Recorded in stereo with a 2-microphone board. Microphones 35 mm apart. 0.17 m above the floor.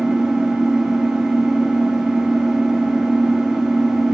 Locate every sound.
0.0 s an engine running: 20° right (ahead or behind), 2.5 m